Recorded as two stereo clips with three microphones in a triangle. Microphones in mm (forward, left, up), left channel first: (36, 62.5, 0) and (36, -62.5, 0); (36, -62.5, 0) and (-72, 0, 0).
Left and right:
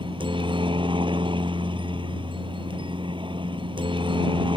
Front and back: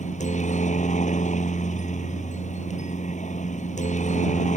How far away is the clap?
I don't hear a clap.